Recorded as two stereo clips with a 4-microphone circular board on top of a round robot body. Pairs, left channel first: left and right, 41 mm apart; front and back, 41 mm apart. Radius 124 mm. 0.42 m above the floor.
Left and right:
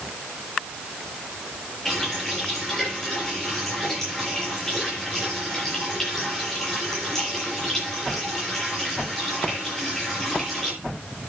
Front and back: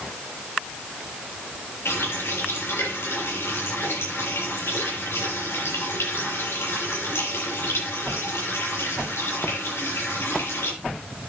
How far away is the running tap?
About 9 m.